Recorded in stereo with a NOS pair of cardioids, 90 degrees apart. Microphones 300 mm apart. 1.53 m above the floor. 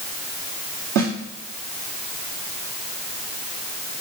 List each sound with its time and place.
0.9 s a snare drum: 65° right, 2.5 m